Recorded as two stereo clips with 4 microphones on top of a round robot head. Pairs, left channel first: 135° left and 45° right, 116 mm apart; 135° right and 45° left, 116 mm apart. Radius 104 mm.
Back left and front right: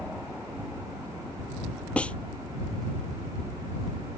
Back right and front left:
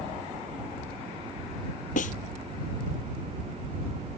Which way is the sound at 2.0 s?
145° right.